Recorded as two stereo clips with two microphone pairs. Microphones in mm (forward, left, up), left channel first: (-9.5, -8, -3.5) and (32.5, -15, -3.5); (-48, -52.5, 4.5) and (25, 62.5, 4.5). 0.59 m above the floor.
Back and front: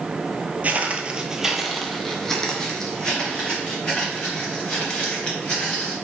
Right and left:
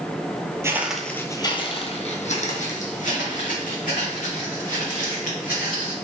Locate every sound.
0.6 s footsteps: straight ahead, 0.7 m; by 5.9 s 125° right, 4 m